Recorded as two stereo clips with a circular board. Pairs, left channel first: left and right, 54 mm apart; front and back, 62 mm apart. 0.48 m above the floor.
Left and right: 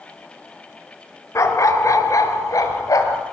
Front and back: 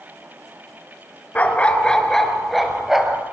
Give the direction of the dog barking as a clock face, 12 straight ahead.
10 o'clock.